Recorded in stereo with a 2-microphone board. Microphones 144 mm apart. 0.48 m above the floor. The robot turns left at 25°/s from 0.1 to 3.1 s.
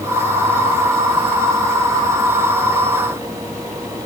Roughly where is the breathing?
No breathing in this recording.